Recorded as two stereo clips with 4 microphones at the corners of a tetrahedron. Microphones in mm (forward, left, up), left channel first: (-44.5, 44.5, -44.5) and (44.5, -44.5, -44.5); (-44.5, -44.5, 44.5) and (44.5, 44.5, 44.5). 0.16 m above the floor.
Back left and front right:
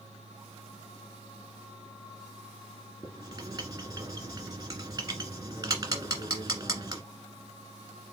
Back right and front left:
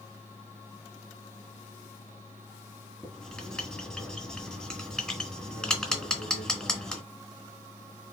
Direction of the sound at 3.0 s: 50° right.